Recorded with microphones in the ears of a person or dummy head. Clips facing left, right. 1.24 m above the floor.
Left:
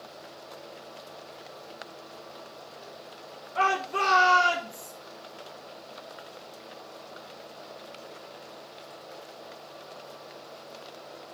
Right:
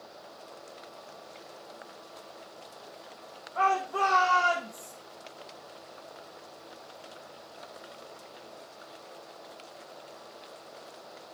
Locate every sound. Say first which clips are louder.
3.5 s a shout: even; 35° left (ahead or behind), 2.5 m; by 4.9 s 30° left (ahead or behind), 4 m